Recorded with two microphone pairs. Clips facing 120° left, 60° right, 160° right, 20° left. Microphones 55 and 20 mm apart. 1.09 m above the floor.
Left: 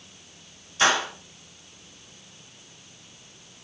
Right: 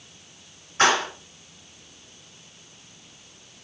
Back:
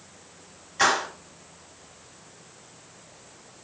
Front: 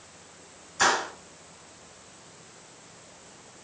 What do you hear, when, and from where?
0.8 s a clap: 95° right, 2.5 m